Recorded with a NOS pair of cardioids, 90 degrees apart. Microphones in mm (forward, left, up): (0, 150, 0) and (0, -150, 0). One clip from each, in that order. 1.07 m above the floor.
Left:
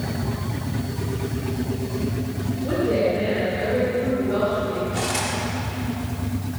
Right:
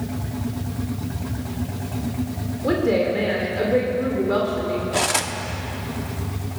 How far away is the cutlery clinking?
About 1.2 m.